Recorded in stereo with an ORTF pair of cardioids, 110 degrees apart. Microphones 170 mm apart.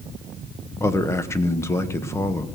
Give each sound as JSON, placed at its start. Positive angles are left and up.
{"t": 0.8, "sound": "a man speaking", "azimuth_deg": 15, "distance_m": 1.1}